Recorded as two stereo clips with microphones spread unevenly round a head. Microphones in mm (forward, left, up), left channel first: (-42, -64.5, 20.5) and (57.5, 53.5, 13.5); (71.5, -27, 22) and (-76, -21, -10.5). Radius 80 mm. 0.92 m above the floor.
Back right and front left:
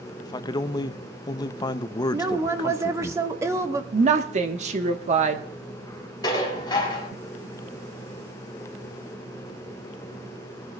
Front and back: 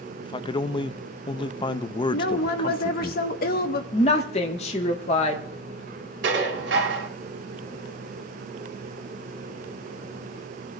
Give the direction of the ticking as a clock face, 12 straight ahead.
No ticking in this recording.